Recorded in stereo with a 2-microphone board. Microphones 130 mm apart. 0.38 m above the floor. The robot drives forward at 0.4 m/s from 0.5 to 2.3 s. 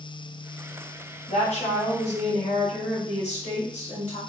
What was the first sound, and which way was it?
A woman speaking, 60° left (ahead or behind).